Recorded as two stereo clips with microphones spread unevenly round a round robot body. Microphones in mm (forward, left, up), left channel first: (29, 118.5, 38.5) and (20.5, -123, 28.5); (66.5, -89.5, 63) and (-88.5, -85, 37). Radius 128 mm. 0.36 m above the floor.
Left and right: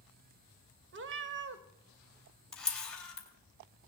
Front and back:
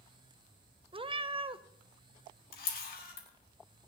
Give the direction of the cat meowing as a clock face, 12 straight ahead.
4 o'clock.